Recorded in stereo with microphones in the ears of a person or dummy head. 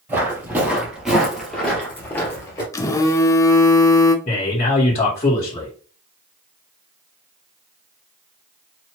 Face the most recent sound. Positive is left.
turn(degrees=30)  # may be behind; listen again after turning